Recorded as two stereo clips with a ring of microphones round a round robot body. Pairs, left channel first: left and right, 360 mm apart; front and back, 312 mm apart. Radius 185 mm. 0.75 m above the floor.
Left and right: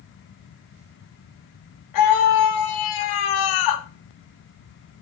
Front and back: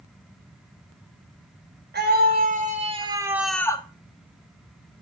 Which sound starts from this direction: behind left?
A scream, at 1.9 s.